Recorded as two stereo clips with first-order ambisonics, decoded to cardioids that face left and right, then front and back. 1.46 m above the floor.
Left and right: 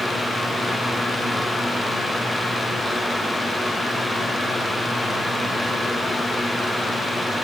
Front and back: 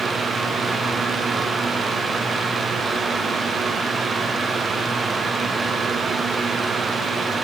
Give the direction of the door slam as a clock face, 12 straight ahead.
I don't hear a door slam.